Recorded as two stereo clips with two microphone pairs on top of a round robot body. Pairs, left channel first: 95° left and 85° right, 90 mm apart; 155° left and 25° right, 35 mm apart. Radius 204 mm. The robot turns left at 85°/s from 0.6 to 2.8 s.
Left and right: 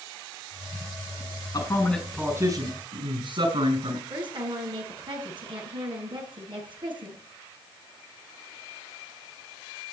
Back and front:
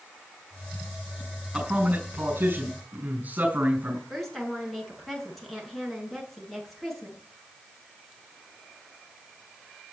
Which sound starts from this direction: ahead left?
A man speaking, at 1.5 s.